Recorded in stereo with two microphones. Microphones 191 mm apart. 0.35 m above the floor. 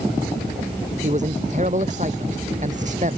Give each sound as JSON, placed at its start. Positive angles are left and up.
{"t": 1.0, "sound": "a man speaking", "side_deg": -40}